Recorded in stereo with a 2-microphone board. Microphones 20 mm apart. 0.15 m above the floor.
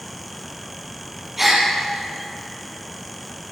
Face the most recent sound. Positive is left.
turn(degrees=-15)  # may be behind; listen again after turning